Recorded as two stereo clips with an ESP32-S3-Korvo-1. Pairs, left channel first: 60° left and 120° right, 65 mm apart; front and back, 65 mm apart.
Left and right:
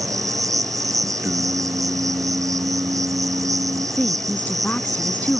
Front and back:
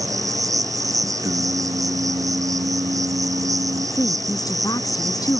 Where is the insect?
150° right.